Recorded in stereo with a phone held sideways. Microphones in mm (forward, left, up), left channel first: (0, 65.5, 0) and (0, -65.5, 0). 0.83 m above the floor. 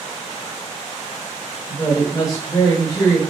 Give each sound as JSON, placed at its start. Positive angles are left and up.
{"t": 1.7, "sound": "a woman speaking", "side_deg": 25, "distance_m": 0.9}